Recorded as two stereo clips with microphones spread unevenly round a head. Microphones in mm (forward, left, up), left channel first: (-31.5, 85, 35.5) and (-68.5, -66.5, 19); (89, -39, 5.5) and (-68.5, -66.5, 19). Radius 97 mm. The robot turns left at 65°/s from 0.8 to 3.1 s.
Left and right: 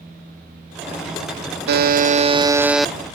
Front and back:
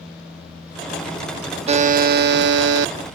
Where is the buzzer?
120° right; by 2.9 s 160° left.